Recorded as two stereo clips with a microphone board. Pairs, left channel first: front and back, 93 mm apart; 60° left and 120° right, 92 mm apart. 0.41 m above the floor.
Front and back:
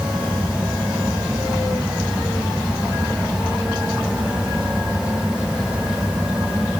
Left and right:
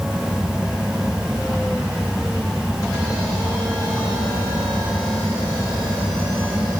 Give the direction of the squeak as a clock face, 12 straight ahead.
No squeak in this recording.